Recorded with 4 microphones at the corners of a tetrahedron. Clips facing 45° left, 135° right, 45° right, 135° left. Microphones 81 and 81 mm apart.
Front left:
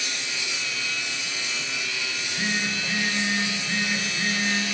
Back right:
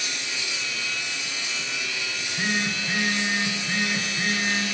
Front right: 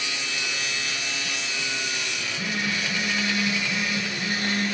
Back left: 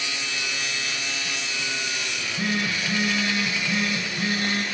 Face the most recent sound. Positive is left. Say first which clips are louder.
# back right 2 dB, back left 3 dB
turn(degrees=150)